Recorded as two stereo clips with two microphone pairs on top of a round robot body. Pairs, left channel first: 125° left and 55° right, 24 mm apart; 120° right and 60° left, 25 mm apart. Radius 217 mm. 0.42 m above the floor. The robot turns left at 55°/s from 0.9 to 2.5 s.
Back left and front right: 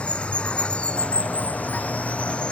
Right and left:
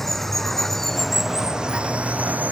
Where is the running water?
160° left; by 2.5 s 75° left.